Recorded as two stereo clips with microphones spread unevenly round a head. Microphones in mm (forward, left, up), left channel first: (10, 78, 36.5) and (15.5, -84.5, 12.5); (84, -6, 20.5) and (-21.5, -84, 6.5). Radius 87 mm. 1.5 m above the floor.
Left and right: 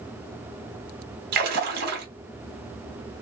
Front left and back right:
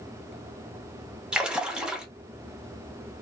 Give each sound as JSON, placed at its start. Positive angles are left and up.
{"t": 1.3, "sound": "a splash", "azimuth_deg": -60, "distance_m": 0.9}